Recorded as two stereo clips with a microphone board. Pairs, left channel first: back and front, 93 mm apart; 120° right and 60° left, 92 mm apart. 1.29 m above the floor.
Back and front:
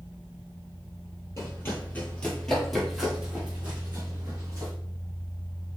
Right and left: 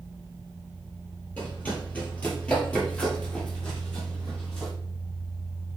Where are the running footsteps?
175° right, 1.4 m; by 4.7 s 35° right, 1.7 m.